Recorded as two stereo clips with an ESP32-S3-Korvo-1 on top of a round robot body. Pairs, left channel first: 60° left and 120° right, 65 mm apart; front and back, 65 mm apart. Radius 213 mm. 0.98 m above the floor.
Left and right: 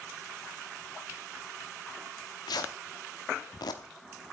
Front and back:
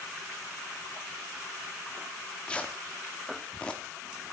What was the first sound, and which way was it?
Tearing paper, 75° left.